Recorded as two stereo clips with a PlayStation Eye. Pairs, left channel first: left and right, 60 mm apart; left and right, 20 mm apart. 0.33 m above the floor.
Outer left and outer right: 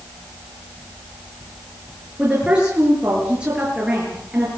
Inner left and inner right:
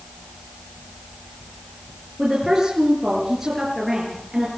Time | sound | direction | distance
2.2 | a woman speaking | 20° right (ahead or behind) | 6.5 m